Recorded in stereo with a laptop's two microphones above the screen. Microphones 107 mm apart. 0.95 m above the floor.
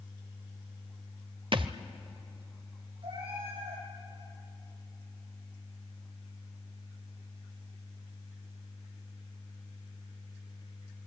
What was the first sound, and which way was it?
A thud, 50° right (ahead or behind).